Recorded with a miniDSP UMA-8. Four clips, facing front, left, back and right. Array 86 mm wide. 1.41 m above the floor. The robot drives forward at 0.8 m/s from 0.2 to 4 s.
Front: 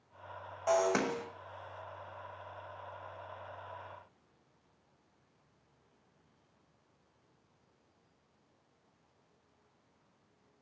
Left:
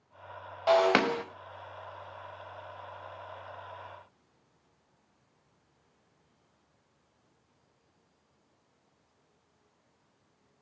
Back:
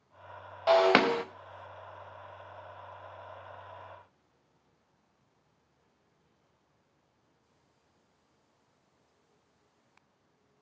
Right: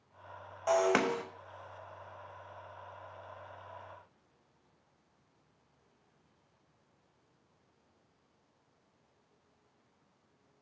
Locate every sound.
0.7 s breaking glass: 135° left, 0.6 m; by 1.2 s 165° left, 0.9 m